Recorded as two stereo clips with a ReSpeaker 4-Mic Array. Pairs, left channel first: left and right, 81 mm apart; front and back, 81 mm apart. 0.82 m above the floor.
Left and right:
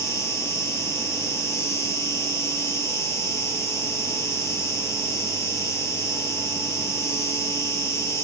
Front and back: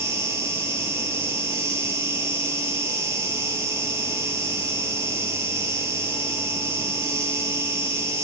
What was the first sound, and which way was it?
An insect, 130° left.